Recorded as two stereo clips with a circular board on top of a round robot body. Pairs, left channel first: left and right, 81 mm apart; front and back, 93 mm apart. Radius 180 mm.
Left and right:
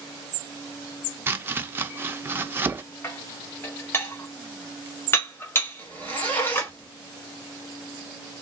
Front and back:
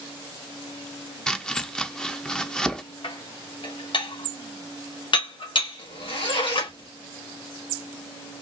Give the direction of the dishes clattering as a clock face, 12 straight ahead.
11 o'clock.